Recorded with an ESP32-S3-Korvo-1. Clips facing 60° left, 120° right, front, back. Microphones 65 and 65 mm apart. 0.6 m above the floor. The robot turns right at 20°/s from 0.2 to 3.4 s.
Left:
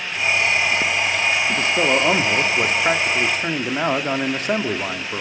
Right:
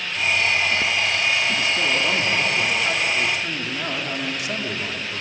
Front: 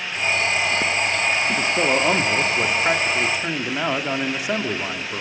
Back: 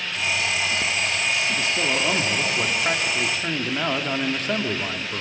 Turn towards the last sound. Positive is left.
turn(degrees=75)